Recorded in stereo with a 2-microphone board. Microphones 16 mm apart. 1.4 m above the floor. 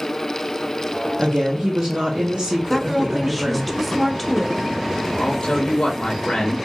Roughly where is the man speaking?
Left.